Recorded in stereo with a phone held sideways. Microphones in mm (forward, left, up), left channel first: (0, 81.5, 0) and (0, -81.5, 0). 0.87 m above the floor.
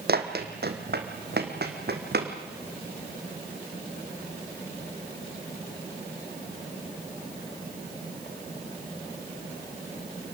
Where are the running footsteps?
65° right (ahead or behind), 2 m; by 2.3 s 70° right (ahead or behind), 3 m.